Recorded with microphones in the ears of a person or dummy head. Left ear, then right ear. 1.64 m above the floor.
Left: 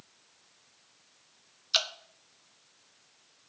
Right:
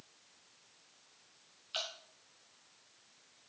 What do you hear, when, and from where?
1.7 s dripping: 60° left (ahead or behind), 1.1 m